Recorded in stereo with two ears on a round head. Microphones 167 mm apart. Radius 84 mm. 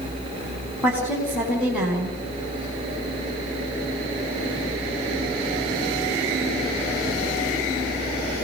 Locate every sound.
0.8 s a woman speaking: 5° right (ahead or behind), 5.5 m